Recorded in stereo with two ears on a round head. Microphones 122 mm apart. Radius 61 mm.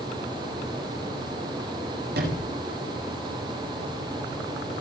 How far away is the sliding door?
About 8.5 m.